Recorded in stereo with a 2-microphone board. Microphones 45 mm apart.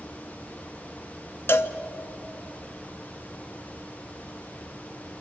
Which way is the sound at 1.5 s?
60° left (ahead or behind).